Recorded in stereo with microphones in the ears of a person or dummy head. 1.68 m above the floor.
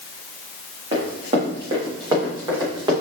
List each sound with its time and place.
0.9 s running footsteps: 40° right (ahead or behind), 5 m; by 2.9 s 30° right (ahead or behind), 6 m